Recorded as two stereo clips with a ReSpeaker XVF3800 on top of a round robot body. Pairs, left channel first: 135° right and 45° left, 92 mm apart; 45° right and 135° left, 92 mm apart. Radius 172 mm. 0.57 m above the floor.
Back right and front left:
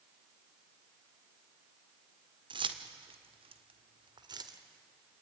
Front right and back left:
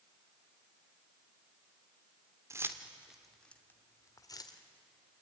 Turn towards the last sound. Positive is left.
turn(degrees=0)